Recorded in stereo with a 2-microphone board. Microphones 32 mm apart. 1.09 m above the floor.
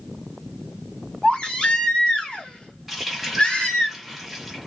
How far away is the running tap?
About 1.1 m.